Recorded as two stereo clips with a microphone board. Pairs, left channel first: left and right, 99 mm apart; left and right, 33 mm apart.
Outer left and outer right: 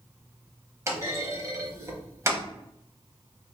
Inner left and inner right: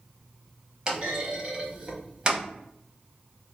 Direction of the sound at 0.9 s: 30° right (ahead or behind).